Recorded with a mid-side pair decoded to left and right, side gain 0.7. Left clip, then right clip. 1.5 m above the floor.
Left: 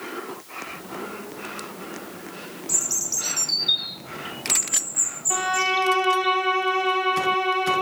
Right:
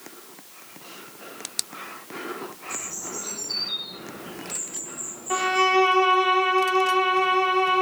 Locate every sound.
2.7 s a bird: 65° left, 0.9 m
5.3 s a violin: 15° right, 1.4 m